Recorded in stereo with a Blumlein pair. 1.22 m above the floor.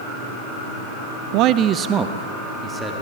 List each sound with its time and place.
1.3 s a man speaking: 45° right, 0.6 m; by 3.0 s 10° right, 2.5 m